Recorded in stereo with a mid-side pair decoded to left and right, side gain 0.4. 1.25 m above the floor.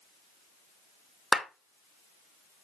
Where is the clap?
5° right, 2 m.